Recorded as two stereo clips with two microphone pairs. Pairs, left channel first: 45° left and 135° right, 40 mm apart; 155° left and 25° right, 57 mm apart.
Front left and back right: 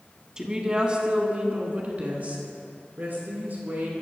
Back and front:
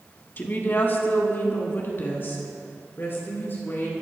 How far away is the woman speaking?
About 1.8 m.